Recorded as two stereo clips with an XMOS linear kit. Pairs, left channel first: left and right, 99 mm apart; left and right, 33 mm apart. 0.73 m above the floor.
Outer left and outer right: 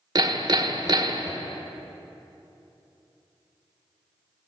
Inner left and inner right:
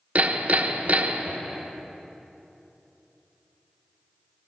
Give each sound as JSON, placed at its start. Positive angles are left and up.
{"t": 0.1, "sound": "hammering", "side_deg": -45, "distance_m": 0.6}